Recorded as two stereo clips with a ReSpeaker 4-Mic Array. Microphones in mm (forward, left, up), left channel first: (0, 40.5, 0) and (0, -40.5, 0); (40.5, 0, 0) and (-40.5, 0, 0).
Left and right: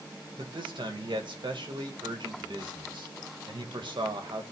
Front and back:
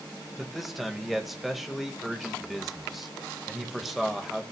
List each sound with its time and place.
0.4 s a man speaking: 90° right, 1.9 m